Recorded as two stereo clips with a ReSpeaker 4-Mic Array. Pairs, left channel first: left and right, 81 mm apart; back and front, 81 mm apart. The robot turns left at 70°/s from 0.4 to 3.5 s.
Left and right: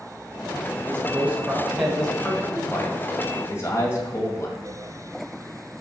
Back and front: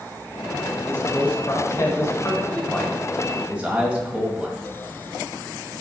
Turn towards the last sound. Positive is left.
turn(degrees=65)